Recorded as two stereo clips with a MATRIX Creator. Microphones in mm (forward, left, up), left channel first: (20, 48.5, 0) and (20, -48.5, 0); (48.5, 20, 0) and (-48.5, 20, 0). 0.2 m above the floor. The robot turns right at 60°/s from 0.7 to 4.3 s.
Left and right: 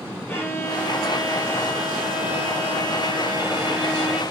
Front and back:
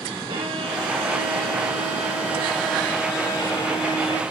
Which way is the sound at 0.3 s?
155° left.